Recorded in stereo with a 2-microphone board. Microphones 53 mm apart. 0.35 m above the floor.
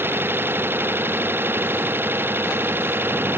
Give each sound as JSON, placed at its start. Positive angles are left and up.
{"t": 0.0, "sound": "an engine running", "side_deg": -45}